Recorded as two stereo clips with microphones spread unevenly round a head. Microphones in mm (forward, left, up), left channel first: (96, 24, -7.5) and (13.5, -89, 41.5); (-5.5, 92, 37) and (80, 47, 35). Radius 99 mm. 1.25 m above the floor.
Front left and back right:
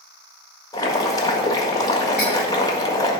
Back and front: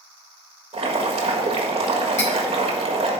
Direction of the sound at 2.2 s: 150° left.